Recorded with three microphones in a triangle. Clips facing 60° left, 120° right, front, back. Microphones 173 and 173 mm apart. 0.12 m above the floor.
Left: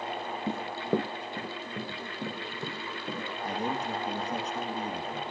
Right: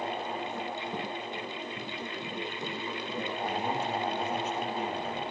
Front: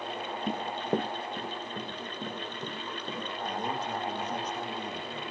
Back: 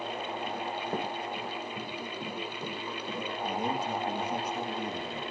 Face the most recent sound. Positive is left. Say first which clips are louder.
# left 1 dB, back 2 dB
turn(degrees=100)